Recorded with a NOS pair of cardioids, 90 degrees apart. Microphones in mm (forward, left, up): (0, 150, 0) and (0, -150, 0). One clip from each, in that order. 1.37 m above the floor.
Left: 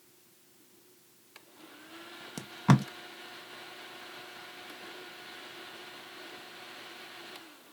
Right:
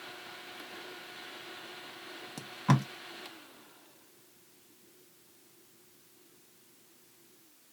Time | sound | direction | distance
2.4 | tape being pulled | 20° left | 0.7 m